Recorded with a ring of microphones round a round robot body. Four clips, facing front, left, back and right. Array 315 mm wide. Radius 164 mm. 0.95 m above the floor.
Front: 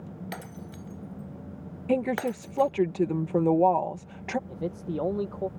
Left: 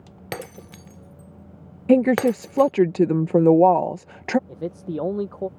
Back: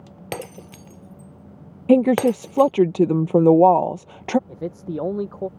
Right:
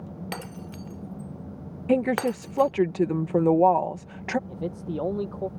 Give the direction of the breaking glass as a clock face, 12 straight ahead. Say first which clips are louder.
Left 7 dB, back 7 dB; 7 o'clock.